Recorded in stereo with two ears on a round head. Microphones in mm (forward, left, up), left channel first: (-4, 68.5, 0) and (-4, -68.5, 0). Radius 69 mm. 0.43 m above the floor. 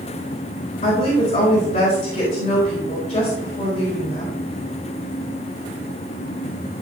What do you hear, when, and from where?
0.8 s a woman speaking: 45° left (ahead or behind), 3.5 m